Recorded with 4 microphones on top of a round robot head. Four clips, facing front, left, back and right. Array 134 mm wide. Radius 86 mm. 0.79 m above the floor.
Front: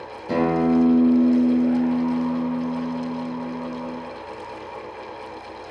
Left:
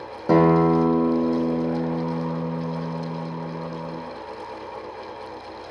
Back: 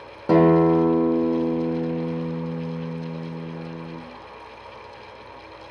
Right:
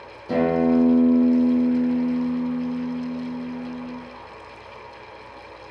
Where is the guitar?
125° left, 0.9 m.